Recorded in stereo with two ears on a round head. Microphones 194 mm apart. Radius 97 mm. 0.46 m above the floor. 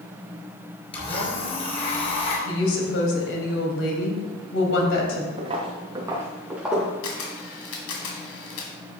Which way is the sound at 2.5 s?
65° left (ahead or behind).